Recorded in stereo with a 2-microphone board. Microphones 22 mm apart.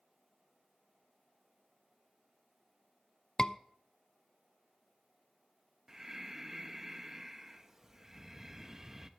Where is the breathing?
20° right (ahead or behind), 1.0 m.